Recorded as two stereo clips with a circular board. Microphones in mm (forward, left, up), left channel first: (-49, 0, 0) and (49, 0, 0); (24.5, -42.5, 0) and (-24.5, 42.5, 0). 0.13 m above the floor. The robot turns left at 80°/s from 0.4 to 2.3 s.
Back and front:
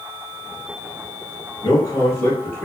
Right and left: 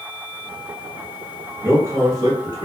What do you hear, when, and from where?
1.6 s a man speaking: 175° left, 1.5 m; by 2.6 s 120° left, 1.5 m